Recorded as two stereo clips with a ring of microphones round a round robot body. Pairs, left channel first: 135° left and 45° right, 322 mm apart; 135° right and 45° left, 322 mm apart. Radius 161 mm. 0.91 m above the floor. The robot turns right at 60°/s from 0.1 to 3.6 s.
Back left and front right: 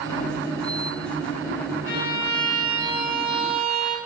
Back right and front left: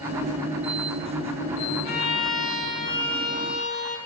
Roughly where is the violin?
Behind.